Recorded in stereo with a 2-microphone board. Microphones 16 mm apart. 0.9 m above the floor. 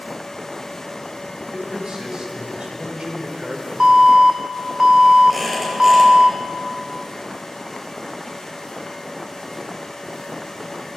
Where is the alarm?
55° right (ahead or behind), 1.2 m.